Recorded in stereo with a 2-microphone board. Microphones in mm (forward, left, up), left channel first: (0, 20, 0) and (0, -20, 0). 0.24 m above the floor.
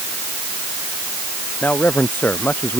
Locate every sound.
1.6 s a man speaking: 50° left (ahead or behind)